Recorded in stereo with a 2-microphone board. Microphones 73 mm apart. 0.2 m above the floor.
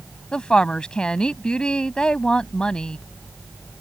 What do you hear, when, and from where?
0.3 s a woman speaking: 15° left (ahead or behind)